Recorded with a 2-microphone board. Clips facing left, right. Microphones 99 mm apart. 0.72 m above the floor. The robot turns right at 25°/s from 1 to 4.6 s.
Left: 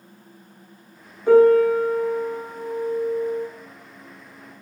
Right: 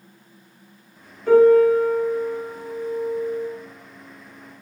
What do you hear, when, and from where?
1.3 s a piano: 20° left, 1.0 m; by 3.5 s 75° left, 1.0 m